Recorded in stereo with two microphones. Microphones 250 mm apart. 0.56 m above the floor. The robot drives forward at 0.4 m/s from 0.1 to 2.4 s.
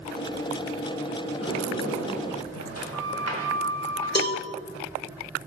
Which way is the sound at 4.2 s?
40° left (ahead or behind).